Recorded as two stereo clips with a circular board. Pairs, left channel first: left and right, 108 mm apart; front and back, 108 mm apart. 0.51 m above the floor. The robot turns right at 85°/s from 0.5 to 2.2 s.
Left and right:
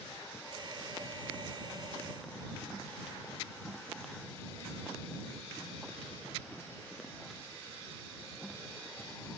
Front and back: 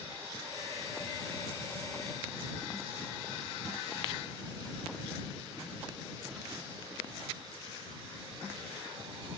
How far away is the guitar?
I don't hear a guitar.